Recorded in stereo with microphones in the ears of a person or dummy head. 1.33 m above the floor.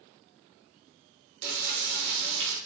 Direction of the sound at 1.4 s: 65° right (ahead or behind).